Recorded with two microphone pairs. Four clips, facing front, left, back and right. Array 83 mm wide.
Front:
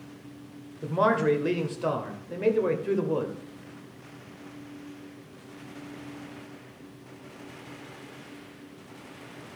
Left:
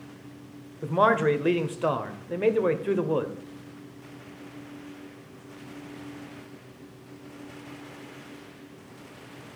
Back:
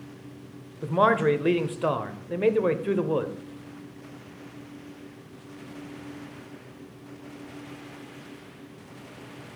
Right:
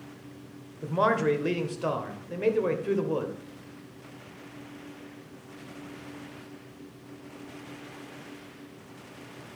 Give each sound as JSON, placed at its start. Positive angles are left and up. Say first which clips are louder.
{"t": 0.8, "sound": "a man speaking", "louder": "left 3 dB, back 2 dB", "azimuth_deg": 130, "distance_m": 0.9}